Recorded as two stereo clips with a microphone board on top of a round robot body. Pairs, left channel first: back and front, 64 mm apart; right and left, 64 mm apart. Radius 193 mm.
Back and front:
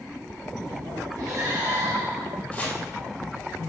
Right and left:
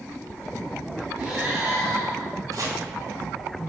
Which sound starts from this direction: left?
Chopping, at 2.5 s.